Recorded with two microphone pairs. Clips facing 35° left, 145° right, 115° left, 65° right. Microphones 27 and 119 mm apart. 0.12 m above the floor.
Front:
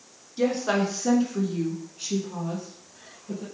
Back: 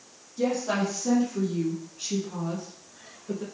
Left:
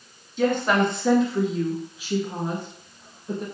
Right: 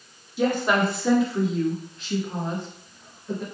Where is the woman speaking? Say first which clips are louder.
Front 2 dB, left 1 dB; 15° left, 1.4 m; by 3.4 s 175° left, 1.3 m.